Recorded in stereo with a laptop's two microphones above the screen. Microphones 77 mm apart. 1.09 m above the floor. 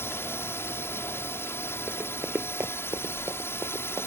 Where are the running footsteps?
25° right (ahead or behind); by 4.1 s 50° right (ahead or behind).